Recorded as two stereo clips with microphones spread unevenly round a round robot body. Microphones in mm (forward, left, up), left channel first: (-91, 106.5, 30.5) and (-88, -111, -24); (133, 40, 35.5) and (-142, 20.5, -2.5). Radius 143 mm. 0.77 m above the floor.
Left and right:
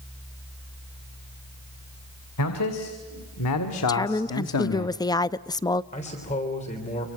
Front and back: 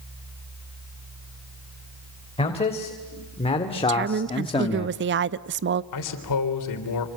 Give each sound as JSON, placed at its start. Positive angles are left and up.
{"t": 2.4, "sound": "a man speaking", "azimuth_deg": 75, "distance_m": 3.5}
{"t": 3.9, "sound": "a woman speaking", "azimuth_deg": 175, "distance_m": 0.7}
{"t": 5.9, "sound": "a man speaking", "azimuth_deg": 20, "distance_m": 3.5}